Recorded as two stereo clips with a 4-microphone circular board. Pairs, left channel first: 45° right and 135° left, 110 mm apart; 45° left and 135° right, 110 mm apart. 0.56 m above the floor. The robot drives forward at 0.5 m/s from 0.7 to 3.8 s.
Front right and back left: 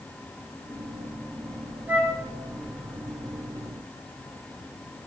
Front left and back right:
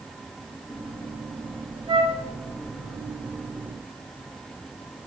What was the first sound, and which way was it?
A flute, 160° right.